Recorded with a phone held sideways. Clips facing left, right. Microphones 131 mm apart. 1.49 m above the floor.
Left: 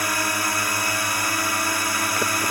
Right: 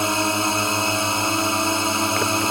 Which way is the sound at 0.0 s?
25° right (ahead or behind).